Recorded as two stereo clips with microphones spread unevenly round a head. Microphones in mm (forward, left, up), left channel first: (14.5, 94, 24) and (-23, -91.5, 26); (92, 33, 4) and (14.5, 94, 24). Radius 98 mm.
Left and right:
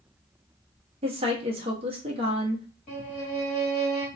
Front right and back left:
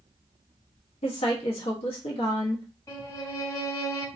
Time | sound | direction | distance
1.0 | a woman speaking | 50° right | 0.7 m
2.9 | a violin | 25° left | 1.6 m